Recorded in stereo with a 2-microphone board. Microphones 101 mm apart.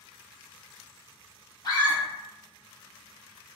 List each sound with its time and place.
1.6 s a scream: 45° left (ahead or behind), 1.7 m